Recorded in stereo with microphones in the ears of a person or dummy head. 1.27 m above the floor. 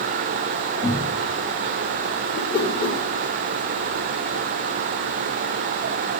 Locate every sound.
0.8 s a cupboard door: 60° left (ahead or behind), 7 m
2.3 s a whoosh: 50° left (ahead or behind), 2.5 m